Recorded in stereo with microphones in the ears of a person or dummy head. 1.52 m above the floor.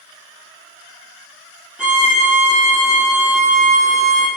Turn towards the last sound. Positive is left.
turn(degrees=-5)  # may be behind; listen again after turning